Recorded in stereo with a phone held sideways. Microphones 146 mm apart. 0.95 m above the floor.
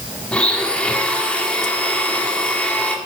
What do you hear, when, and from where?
0.3 s a blender: 5° left (ahead or behind), 1.4 m